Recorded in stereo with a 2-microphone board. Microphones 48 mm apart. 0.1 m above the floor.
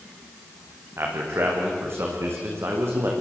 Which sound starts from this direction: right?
A man speaking, at 1.0 s.